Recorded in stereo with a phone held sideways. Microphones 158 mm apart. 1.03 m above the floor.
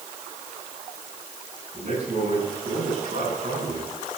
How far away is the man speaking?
About 8.5 m.